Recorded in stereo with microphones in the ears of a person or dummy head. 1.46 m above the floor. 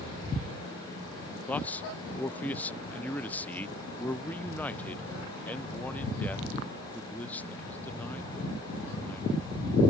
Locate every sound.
1.5 s a man speaking: 10° left (ahead or behind)